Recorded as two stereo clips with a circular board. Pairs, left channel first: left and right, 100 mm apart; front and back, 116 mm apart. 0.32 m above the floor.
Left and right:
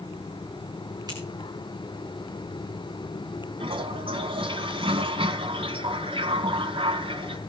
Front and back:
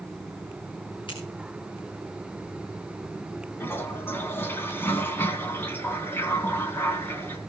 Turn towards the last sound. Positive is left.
turn(degrees=-70)